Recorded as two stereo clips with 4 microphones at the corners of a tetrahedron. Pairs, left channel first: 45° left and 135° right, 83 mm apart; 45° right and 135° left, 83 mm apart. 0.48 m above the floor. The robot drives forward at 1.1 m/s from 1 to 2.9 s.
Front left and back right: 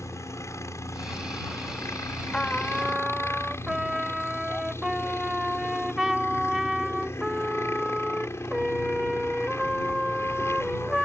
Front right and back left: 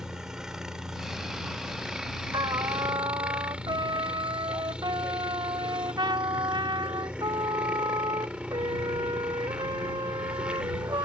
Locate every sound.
0.0 s a helicopter: 55° left; by 11.1 s 65° left
2.3 s a trumpet: 120° left; by 11.1 s 140° left